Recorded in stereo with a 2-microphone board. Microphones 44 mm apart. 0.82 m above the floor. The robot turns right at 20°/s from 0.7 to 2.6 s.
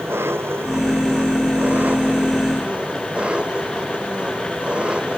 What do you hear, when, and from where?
0.0 s an engine running: 65° right; by 5.2 s 25° right